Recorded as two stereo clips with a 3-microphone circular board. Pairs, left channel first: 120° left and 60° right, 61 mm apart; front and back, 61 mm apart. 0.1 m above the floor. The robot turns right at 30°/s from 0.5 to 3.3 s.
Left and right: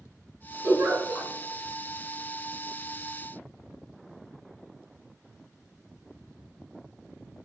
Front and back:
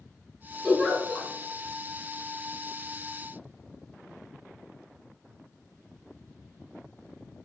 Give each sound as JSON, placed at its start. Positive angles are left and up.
{"t": 0.6, "sound": "a giggle", "azimuth_deg": -85, "distance_m": 1.5}